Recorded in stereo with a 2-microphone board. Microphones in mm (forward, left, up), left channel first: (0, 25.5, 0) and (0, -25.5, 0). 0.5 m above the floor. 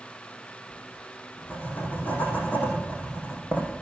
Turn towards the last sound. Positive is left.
turn(degrees=40)  # may be behind; listen again after turning